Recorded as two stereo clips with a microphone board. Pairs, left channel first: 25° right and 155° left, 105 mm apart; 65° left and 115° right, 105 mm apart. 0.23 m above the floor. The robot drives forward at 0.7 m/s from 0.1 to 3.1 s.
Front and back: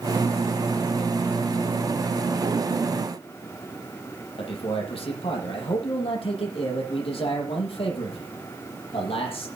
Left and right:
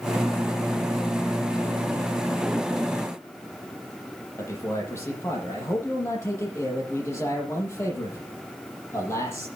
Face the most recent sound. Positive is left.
turn(degrees=5)